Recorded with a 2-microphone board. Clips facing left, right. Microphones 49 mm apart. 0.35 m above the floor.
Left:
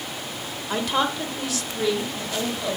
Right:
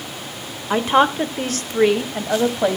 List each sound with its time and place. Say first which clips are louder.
0.7 s a woman speaking: right 8 dB; 25° right (ahead or behind), 1.0 m; by 2.8 s 60° right (ahead or behind), 2.0 m